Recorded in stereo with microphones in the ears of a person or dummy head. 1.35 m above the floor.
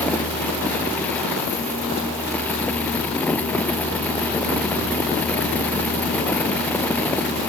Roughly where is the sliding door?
I don't hear a sliding door.